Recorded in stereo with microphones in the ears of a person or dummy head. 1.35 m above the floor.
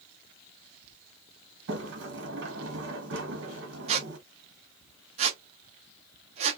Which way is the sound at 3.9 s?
40° right (ahead or behind).